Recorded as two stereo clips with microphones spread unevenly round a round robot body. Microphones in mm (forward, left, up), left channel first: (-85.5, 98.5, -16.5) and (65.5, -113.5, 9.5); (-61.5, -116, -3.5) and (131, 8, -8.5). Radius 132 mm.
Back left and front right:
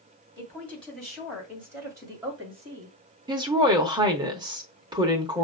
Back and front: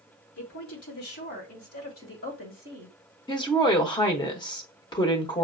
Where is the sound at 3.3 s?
115° right, 0.9 m.